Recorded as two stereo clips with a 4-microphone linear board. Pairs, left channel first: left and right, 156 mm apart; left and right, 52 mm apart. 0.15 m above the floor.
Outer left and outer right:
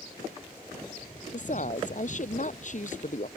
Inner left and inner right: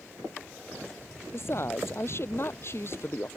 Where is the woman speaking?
55° left (ahead or behind).